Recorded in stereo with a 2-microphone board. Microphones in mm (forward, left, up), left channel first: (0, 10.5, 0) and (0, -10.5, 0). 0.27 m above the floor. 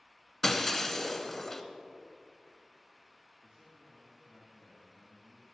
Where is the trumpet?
No trumpet in this recording.